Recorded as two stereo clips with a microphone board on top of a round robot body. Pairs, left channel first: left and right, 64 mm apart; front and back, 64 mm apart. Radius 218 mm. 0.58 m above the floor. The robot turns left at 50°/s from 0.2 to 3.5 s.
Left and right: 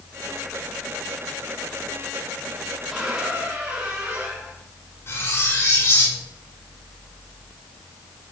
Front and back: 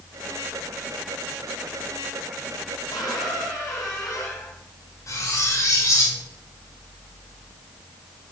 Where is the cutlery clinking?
40° left, 1.5 m.